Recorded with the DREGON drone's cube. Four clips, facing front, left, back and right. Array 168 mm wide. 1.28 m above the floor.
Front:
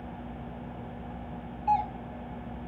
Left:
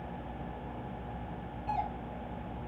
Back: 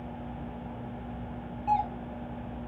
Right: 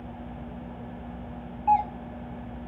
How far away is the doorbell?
About 0.9 m.